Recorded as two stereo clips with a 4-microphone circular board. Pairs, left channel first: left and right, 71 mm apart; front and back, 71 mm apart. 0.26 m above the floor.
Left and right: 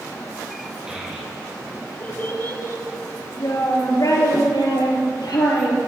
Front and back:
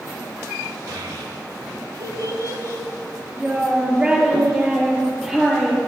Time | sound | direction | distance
0.9 | a child speaking | 165° right | 2 m